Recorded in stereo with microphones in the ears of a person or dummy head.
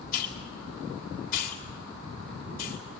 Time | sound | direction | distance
0.1 | a hiss | 60° left (ahead or behind) | 3.5 m